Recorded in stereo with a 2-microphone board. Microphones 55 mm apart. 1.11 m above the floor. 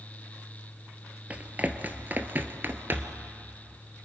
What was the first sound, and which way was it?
Running footsteps, 25° right (ahead or behind).